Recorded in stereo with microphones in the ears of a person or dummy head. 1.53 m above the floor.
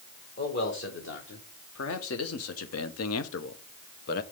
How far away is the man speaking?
About 2 m.